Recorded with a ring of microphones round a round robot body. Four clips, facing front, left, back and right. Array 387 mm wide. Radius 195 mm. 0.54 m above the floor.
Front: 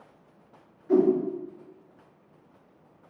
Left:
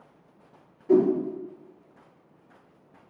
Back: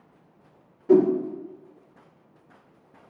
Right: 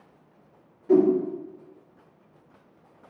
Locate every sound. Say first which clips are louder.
0.9 s a whoosh: right 1 dB, back 3 dB; straight behind, 1.6 m